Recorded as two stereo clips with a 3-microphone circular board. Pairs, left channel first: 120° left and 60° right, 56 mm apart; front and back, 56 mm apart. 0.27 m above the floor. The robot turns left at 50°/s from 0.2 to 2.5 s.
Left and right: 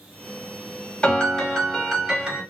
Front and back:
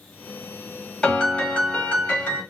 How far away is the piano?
About 1.4 m.